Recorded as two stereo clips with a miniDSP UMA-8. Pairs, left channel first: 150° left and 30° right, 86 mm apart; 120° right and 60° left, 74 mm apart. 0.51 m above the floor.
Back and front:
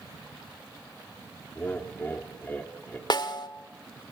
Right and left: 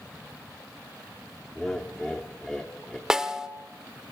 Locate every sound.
1.6 s laughter: 170° left, 1.2 m
3.1 s a snare drum: 140° left, 1.2 m